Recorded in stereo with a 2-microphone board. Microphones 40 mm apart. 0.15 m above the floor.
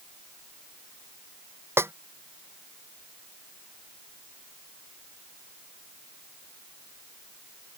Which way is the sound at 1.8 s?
75° right (ahead or behind).